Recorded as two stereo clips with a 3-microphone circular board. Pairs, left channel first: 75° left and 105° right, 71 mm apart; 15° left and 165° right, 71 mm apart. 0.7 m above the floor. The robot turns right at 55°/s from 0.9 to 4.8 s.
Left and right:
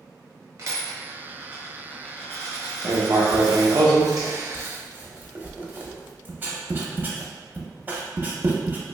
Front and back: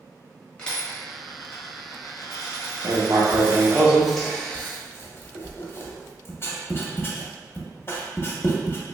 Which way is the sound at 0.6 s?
65° right.